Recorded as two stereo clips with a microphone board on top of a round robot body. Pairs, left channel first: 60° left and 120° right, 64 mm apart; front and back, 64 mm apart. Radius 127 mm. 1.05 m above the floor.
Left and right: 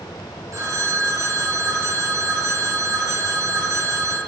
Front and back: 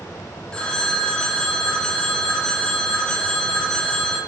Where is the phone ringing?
75° right, 2.5 m.